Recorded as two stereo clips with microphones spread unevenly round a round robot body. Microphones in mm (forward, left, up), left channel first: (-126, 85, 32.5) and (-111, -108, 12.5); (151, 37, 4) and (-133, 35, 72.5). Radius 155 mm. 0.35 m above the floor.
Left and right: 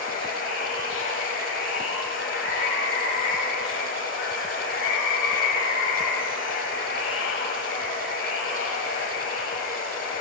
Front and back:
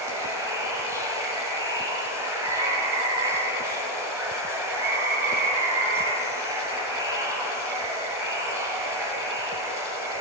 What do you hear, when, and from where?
0.0 s running water: 95° left, 1.8 m